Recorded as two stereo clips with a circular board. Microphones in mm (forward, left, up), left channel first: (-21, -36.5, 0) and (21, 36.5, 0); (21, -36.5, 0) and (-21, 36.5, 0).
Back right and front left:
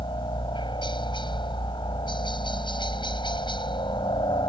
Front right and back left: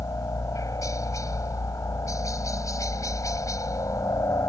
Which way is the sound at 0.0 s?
110° right.